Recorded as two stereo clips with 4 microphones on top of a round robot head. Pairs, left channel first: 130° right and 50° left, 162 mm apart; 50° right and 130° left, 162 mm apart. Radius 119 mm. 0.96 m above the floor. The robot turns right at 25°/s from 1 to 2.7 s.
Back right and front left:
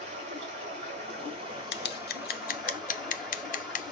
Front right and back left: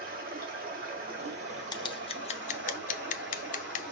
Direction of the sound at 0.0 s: 100° left.